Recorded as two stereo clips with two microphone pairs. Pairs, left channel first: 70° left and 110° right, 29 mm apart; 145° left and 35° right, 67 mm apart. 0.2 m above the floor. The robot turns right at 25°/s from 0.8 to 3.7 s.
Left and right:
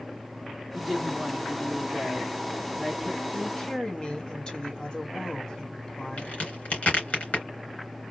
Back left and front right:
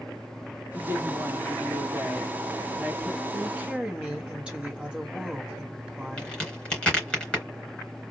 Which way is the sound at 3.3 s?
25° left.